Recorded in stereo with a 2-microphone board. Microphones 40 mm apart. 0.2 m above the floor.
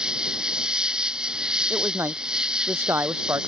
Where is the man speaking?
80° right.